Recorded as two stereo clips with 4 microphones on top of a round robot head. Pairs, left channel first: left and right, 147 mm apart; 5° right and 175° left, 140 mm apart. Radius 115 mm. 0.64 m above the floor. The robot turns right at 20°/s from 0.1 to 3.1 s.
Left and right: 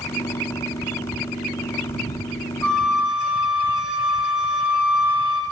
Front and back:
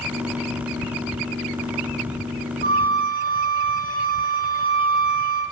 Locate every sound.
2.6 s a flute: 175° left, 2.5 m; by 5.4 s 175° right, 2.5 m